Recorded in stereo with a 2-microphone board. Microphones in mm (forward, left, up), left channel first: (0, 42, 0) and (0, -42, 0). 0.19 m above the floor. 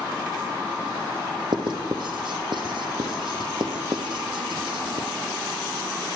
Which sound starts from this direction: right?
Writing, at 1.5 s.